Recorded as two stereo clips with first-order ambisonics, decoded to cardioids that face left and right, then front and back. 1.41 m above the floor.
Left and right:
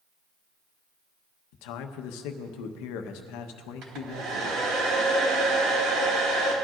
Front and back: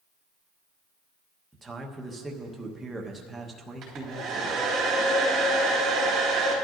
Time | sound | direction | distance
1.5 | a man speaking | 100° left | 1.0 m
3.8 | a hair dryer | 130° right | 3.5 m